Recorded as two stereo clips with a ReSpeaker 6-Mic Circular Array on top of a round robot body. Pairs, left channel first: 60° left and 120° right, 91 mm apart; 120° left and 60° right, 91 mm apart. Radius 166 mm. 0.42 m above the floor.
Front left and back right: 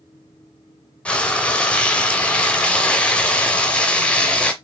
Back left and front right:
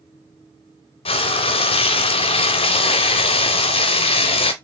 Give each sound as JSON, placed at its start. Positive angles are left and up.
{"t": 1.1, "sound": "frying", "azimuth_deg": 140, "distance_m": 0.5}